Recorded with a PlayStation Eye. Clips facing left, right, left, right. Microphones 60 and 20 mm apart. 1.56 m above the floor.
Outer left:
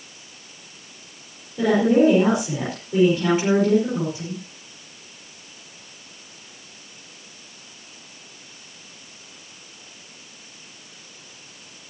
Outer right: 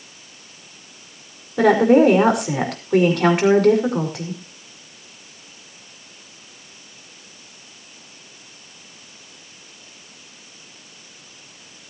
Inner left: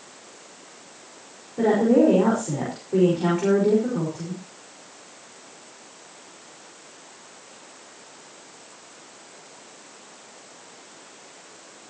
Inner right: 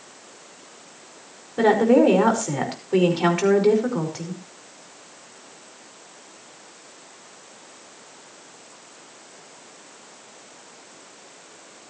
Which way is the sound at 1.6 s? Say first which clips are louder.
Outer right 4 dB, inner right 2 dB; 70° right (ahead or behind).